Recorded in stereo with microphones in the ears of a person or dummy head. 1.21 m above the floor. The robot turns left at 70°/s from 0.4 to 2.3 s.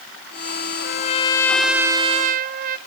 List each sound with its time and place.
0.8 s a trumpet: 60° left, 0.9 m; by 2.8 s 45° right, 0.9 m